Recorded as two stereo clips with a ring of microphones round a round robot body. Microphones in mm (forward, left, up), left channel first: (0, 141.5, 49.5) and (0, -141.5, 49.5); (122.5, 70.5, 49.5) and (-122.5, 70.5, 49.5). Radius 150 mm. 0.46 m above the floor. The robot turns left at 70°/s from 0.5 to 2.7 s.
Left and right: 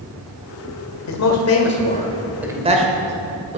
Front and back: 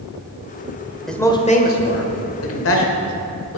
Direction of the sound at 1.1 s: 90° left.